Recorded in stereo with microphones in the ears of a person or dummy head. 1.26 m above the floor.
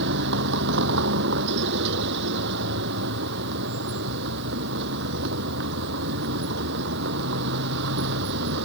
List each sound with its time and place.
0.0 s a vehicle: 60° right (ahead or behind)